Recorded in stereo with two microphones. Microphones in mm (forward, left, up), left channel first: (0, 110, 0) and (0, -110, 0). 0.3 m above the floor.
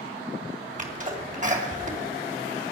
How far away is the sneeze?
About 2.5 m.